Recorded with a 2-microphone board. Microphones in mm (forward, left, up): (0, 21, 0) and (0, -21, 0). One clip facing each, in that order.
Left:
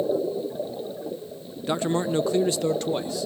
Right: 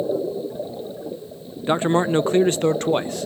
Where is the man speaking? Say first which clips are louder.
Right 6 dB; 30° right (ahead or behind), 0.6 m; by 3.3 s 50° right (ahead or behind), 1.3 m.